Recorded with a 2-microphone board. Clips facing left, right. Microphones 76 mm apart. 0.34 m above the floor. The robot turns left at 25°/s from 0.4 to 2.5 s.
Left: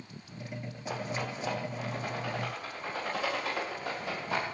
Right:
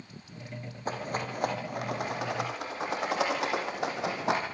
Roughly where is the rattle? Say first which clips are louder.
Right 2 dB; right.